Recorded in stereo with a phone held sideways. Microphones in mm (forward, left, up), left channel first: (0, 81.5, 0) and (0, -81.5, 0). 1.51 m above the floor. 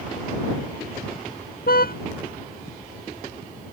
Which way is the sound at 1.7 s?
70° left (ahead or behind).